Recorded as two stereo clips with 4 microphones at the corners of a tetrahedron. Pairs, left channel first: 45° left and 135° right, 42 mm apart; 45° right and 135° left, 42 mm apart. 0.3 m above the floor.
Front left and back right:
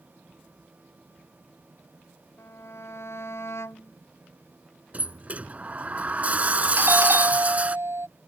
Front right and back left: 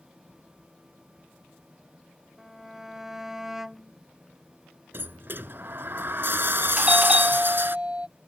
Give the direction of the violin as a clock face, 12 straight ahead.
10 o'clock.